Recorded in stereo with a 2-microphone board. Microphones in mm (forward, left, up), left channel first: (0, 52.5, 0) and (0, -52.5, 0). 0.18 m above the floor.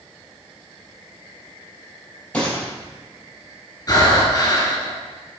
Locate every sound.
2.3 s a gunshot: 10° left (ahead or behind), 4.5 m
3.9 s breathing: 35° left (ahead or behind), 2.5 m